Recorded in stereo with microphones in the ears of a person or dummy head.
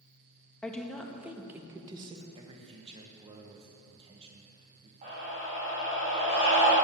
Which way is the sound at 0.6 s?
5° left (ahead or behind).